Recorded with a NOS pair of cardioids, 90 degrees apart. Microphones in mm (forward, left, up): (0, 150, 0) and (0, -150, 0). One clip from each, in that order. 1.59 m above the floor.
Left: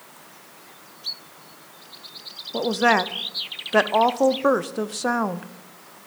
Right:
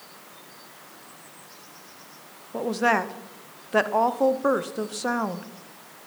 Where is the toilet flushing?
No toilet flushing in this recording.